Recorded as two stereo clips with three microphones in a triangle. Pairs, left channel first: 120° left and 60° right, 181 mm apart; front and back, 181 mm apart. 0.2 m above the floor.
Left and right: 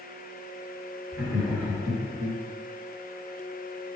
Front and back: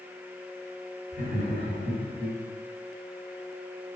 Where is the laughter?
30° left, 2.0 m; by 2.4 s 25° left, 1.5 m.